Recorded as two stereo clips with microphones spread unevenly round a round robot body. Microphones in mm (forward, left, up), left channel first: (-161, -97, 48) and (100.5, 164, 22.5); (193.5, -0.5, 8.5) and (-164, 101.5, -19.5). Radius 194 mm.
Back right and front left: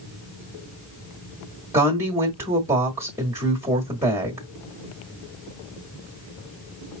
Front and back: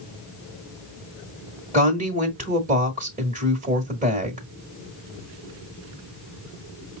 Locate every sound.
1.7 s a woman speaking: 115° left, 1.4 m